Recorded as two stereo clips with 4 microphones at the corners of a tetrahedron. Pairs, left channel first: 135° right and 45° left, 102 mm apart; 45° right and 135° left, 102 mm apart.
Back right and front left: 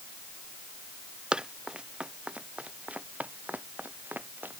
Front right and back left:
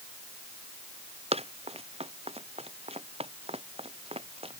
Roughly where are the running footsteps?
Behind left.